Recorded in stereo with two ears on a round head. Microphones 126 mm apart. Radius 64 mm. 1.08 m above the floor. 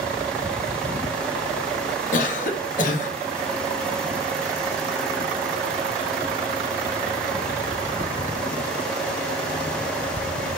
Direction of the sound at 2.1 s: 65° left (ahead or behind).